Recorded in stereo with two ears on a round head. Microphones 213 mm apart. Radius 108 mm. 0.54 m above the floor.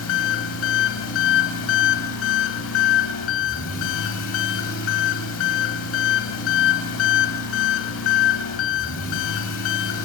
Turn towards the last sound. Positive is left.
turn(degrees=55)  # may be behind; listen again after turning